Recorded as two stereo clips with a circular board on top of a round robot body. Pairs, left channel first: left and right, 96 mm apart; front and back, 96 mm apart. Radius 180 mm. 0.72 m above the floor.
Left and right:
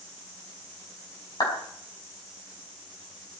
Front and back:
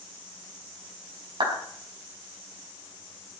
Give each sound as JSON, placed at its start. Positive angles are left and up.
{"t": 1.4, "sound": "a clap", "azimuth_deg": 140, "distance_m": 4.5}